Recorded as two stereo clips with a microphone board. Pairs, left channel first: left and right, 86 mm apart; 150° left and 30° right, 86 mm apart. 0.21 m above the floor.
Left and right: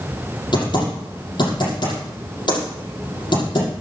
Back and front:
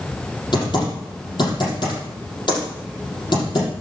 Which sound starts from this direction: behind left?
Typing on a keyboard, at 0.5 s.